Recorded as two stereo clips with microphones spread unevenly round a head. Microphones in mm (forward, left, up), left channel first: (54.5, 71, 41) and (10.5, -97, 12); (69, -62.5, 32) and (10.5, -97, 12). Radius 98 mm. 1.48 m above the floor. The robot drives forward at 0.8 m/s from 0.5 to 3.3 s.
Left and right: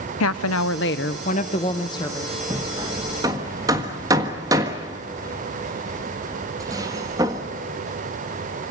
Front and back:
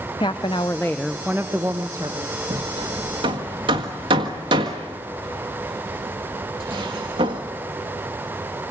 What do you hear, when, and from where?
0.2 s a woman speaking: 90° left, 0.8 m; by 2.4 s 150° left, 1.7 m
2.5 s hammering: 175° left, 0.9 m; by 7.4 s straight behind, 1.4 m